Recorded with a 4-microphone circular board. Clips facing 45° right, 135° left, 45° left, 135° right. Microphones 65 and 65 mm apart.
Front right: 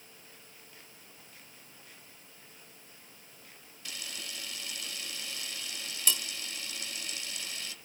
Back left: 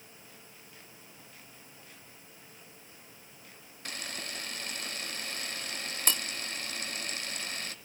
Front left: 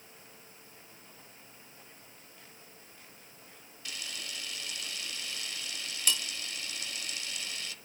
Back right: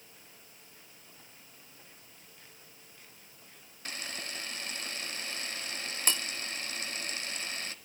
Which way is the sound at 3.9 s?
175° left.